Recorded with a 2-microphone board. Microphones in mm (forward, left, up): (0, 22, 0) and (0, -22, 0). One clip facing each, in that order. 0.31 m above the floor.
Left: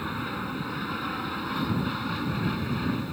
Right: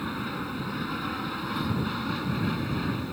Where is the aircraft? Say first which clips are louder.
Even; 5° left (ahead or behind).